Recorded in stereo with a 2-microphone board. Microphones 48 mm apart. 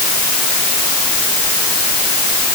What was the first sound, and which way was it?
Only background noise.